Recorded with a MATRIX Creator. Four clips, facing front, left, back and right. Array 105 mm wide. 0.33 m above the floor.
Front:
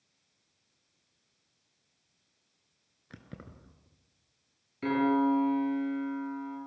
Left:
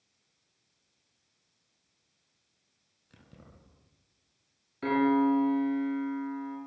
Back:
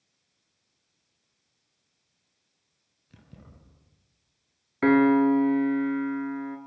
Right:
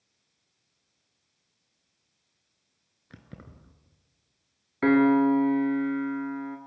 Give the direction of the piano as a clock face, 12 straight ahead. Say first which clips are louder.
Right 5 dB, back 7 dB; 5 o'clock.